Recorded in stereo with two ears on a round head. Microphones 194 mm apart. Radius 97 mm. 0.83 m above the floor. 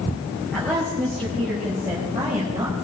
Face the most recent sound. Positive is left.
turn(degrees=-20)  # may be behind; listen again after turning